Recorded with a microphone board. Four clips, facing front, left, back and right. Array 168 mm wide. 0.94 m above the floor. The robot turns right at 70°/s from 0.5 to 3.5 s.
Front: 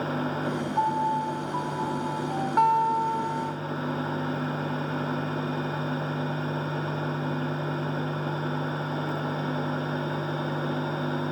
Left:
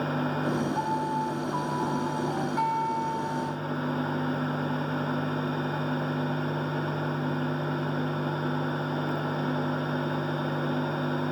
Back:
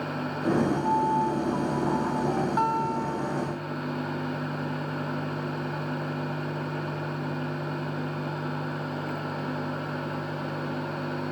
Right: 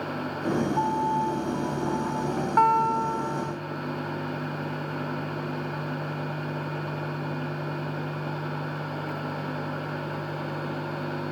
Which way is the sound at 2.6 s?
75° right.